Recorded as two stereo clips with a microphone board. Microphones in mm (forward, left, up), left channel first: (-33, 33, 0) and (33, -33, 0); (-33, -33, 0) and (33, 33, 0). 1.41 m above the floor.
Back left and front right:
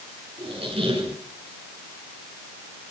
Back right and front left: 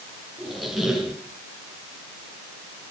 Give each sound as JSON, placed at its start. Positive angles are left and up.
{"t": 0.4, "sound": "a squeak", "azimuth_deg": -45, "distance_m": 5.5}